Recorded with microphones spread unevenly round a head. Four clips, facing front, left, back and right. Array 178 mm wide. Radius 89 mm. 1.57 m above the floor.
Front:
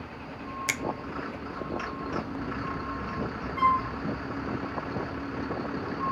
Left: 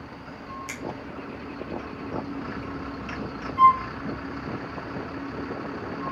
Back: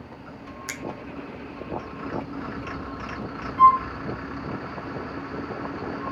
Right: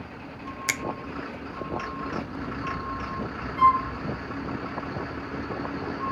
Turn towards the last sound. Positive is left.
turn(degrees=0)